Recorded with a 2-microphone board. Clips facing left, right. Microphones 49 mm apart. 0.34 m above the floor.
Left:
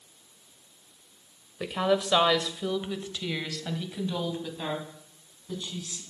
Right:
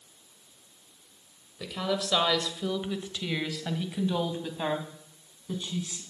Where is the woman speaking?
35° left (ahead or behind), 1.3 m; by 6.0 s 30° right (ahead or behind), 3 m.